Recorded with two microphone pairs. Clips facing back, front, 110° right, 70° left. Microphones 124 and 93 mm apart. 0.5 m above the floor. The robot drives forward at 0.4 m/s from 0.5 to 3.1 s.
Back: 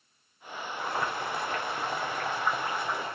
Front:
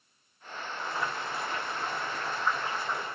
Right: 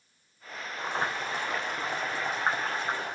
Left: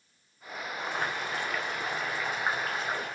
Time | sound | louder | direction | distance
0.8 | boiling | back 3 dB, right 2 dB | 175° right | 2 m